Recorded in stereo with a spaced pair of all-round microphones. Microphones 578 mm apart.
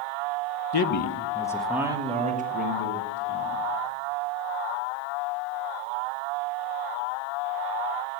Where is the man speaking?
50° left (ahead or behind), 0.5 m; by 3.6 s 20° right (ahead or behind), 2 m.